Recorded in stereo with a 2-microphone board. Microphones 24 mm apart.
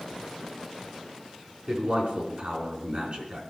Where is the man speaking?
45° right (ahead or behind), 5 m.